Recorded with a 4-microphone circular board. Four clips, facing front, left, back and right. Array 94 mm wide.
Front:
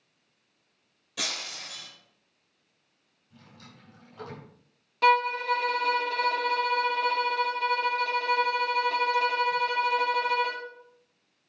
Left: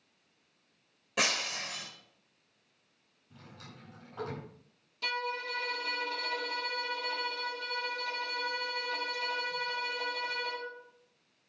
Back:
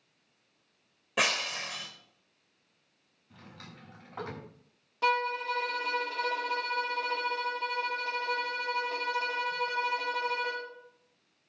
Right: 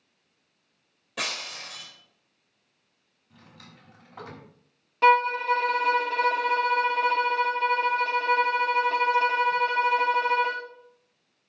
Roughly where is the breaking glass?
Behind.